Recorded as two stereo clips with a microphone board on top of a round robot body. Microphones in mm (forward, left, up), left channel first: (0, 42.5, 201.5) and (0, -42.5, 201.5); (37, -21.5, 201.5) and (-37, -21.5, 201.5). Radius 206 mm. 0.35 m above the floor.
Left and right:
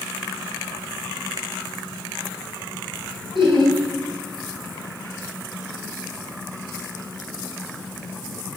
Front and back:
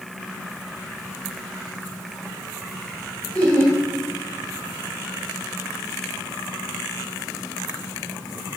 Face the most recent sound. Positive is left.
turn(degrees=-75)